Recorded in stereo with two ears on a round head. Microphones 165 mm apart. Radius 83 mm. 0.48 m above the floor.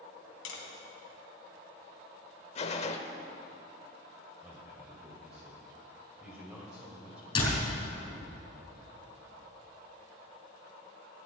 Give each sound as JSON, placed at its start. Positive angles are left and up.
{"t": 0.5, "sound": "tapping", "side_deg": 80, "distance_m": 2.5}
{"t": 2.5, "sound": "a gunshot", "side_deg": 35, "distance_m": 1.0}
{"t": 4.4, "sound": "a man speaking", "side_deg": -5, "distance_m": 2.5}
{"t": 7.3, "sound": "a door slam", "side_deg": 30, "distance_m": 4.5}